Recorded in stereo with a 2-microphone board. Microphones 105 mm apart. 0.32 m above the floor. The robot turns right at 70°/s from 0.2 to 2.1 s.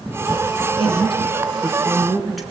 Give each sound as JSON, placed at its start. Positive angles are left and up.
{"t": 0.8, "sound": "a woman speaking", "azimuth_deg": 90, "distance_m": 3.5}